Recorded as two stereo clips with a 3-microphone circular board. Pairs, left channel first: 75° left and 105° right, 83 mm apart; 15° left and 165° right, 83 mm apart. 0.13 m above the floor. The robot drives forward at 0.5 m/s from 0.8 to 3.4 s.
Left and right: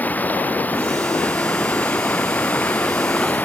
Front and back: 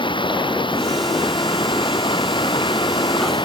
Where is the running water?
5° left.